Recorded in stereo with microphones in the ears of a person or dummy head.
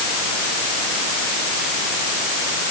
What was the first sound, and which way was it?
Only background noise.